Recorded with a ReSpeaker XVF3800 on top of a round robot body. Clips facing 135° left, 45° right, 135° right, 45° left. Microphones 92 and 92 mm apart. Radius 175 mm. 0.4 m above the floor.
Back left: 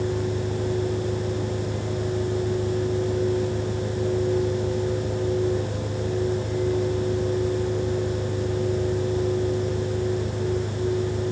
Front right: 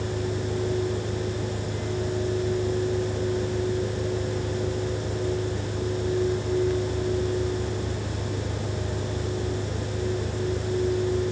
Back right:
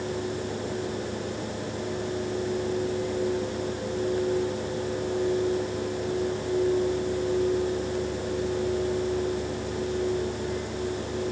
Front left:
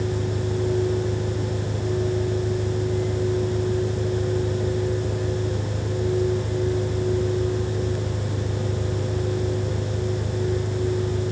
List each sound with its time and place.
0.0 s an engine running: 75° left